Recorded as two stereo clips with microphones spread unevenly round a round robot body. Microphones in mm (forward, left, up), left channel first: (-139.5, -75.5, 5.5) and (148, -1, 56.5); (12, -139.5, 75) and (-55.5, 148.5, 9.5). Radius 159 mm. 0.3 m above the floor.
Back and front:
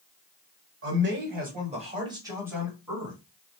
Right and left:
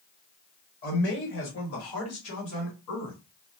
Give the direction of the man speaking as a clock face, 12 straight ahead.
1 o'clock.